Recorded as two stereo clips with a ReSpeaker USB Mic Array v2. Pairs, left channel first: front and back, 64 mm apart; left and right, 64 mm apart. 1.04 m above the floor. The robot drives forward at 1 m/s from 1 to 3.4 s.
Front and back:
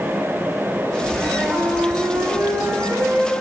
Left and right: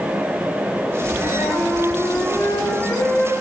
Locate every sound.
1.2 s a flute: 105° left, 1.8 m; by 3.3 s 145° left, 3 m